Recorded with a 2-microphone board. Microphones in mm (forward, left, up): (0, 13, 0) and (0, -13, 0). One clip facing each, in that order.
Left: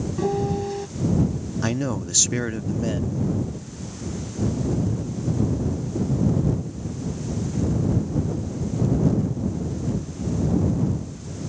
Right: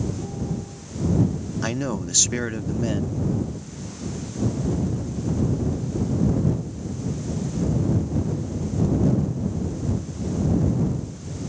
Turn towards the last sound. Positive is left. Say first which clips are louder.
# left 1 dB
turn(degrees=-5)  # may be behind; listen again after turning